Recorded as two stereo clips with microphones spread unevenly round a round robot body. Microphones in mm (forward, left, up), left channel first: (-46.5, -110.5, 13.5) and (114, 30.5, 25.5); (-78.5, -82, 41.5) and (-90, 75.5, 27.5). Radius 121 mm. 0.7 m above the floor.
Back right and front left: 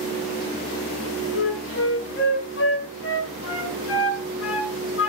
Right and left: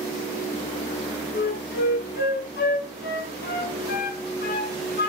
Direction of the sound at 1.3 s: 105° right.